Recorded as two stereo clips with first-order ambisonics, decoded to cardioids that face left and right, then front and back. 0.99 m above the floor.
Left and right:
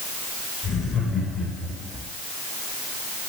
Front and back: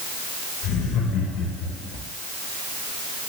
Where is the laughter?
15° left, 4 m.